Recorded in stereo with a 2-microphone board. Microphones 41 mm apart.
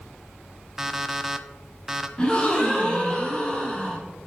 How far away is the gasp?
About 1.8 m.